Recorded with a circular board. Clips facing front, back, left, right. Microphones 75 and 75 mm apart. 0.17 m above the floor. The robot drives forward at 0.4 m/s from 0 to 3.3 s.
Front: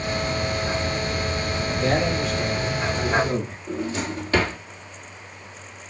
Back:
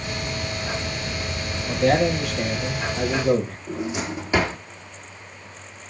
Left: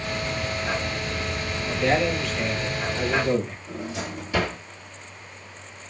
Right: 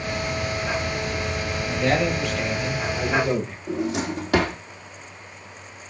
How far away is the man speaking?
About 4 m.